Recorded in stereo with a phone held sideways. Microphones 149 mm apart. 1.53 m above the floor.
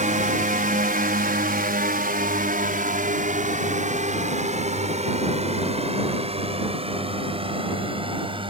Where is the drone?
60° right (ahead or behind); by 8.5 s 35° right (ahead or behind).